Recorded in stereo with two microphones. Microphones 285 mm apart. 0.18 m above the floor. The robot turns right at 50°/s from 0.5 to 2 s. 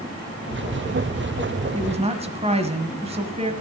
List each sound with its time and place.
1.7 s a woman speaking: 25° right (ahead or behind), 1.2 m; by 3.5 s 20° right (ahead or behind), 1.2 m